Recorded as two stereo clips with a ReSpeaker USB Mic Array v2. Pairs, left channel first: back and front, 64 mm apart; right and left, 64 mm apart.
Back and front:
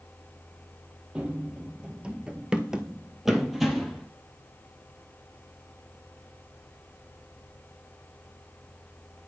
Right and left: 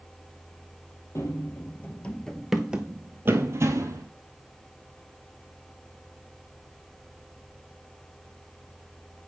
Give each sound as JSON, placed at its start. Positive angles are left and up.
{"t": 1.1, "sound": "running footsteps", "azimuth_deg": -70, "distance_m": 1.3}